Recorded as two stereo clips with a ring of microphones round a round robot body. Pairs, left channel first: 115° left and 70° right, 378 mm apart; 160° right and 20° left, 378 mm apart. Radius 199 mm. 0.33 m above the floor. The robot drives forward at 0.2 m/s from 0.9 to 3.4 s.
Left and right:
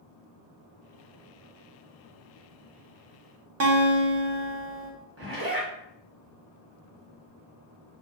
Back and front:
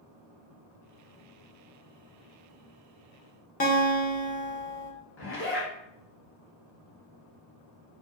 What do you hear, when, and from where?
3.6 s a guitar: 100° right, 0.8 m
5.2 s a zipper: 110° right, 1.3 m